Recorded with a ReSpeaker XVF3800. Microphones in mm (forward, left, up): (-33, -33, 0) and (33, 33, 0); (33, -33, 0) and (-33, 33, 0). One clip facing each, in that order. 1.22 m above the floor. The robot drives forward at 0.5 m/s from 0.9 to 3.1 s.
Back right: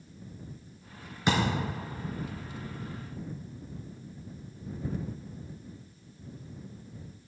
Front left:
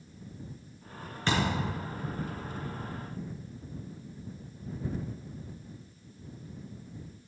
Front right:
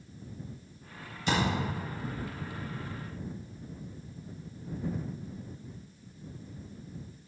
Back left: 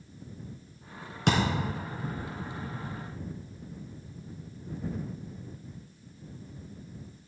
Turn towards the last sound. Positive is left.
turn(degrees=155)